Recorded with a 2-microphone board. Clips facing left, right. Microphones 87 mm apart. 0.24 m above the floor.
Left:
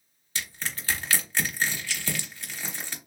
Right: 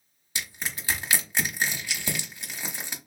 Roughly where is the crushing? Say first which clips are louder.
Even; centre.